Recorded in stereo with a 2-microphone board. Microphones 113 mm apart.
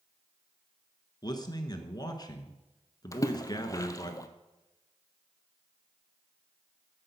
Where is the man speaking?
35° left (ahead or behind), 1.2 m.